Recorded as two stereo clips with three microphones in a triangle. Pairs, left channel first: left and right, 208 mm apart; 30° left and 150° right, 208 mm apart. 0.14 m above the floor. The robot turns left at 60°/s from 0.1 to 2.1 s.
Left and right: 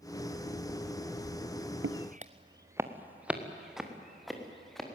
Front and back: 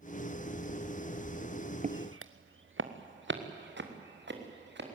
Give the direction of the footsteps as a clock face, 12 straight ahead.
3 o'clock.